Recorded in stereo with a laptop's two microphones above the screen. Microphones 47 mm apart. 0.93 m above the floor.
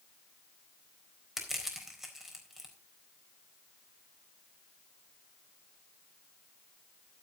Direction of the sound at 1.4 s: 5° right (ahead or behind).